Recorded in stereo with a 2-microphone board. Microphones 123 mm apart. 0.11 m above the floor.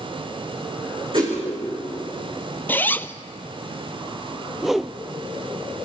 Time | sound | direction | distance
1.1 | a whoosh | 45° right (ahead or behind) | 6.5 m
2.7 | a zipper | 15° left (ahead or behind) | 0.5 m
4.6 | a whoosh | centre (ahead or behind) | 0.5 m